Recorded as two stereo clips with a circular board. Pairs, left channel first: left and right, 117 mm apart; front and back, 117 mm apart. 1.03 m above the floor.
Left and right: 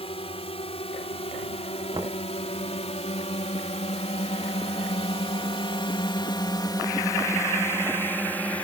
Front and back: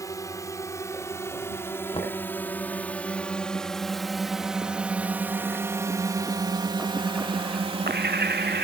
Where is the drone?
60° left; by 8.7 s 165° left.